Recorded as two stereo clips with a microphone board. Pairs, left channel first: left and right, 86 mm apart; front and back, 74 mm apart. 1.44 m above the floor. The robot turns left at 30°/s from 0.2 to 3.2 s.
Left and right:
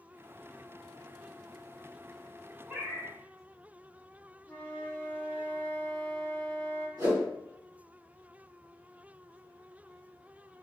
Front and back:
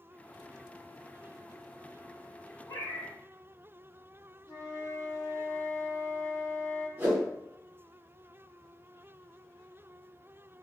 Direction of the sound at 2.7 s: 15° right.